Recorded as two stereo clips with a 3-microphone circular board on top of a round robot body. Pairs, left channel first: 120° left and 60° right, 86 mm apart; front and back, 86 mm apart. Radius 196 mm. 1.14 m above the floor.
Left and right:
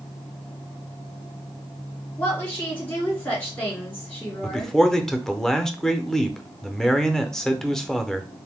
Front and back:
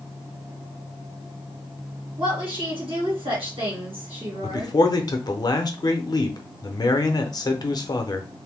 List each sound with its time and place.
2.2 s a woman speaking: 170° right, 2 m
4.4 s a man speaking: 35° left, 0.7 m